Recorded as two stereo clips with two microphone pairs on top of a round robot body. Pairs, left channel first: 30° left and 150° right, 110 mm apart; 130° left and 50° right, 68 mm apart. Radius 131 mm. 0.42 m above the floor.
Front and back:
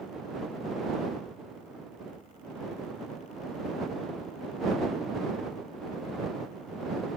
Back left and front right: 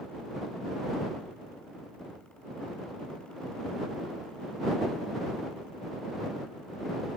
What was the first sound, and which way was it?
Only background noise.